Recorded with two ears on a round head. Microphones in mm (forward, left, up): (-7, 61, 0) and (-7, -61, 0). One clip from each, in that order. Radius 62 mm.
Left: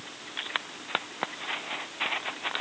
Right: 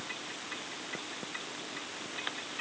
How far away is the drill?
I don't hear a drill.